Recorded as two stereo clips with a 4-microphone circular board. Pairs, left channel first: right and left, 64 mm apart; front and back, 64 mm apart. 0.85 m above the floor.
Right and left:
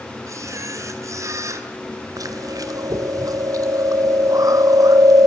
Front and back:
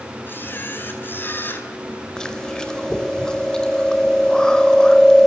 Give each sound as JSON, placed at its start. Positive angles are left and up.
{"t": 0.3, "sound": "a camera shutter", "azimuth_deg": 55, "distance_m": 4.0}
{"t": 2.2, "sound": "chewing", "azimuth_deg": 80, "distance_m": 3.0}